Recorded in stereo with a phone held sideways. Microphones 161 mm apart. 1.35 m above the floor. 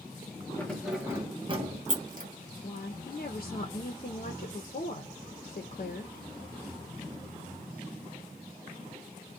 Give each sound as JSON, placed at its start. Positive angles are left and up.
{"t": 0.6, "sound": "keys jangling", "side_deg": 10, "distance_m": 0.8}
{"t": 2.6, "sound": "a woman speaking", "side_deg": 60, "distance_m": 0.6}